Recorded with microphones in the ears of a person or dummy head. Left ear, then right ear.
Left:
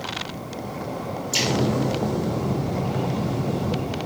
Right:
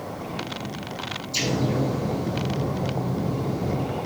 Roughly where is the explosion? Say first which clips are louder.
Left 3 dB; left.